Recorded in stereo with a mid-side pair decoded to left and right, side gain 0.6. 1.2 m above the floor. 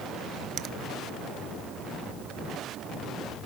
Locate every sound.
0.6 s a finger snap: 50° right, 0.7 m